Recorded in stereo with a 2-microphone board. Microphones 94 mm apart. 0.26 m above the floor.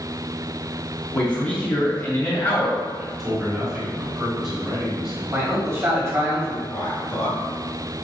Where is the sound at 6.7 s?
45° left (ahead or behind), 1.9 m.